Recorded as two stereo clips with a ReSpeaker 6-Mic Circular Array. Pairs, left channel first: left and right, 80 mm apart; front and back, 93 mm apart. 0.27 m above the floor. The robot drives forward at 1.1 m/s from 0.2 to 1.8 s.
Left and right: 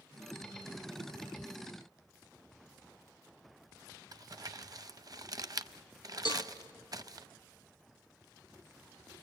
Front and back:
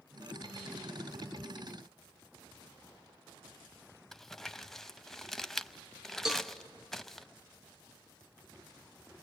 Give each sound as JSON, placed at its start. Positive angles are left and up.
{"t": 4.1, "sound": "crumpling", "azimuth_deg": -85, "distance_m": 0.6}
{"t": 6.2, "sound": "a cowbell", "azimuth_deg": 95, "distance_m": 1.2}